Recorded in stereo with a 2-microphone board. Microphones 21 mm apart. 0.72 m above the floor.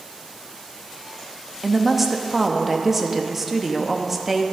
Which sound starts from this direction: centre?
A woman speaking, at 1.6 s.